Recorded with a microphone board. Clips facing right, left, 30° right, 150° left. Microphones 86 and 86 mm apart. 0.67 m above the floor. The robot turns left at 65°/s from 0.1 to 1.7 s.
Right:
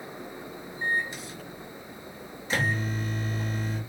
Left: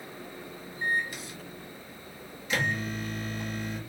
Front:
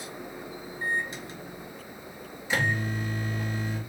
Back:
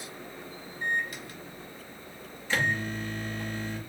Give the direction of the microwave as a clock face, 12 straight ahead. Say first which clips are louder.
Right 1 dB, even; 1 o'clock.